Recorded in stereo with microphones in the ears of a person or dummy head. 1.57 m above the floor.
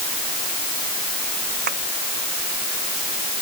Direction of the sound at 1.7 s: 50° right (ahead or behind).